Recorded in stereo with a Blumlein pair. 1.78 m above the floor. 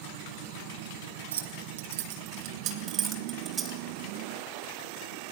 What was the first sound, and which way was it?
Keys jangling, 65° right.